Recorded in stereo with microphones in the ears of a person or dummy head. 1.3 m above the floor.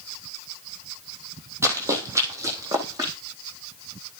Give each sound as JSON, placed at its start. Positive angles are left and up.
{"t": 1.6, "sound": "running footsteps", "side_deg": -15, "distance_m": 2.5}